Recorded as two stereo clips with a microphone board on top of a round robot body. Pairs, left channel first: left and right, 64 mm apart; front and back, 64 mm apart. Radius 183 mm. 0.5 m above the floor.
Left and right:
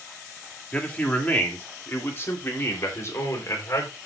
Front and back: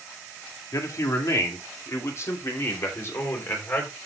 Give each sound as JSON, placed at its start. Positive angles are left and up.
{"t": 0.7, "sound": "a man speaking", "azimuth_deg": 20, "distance_m": 2.5}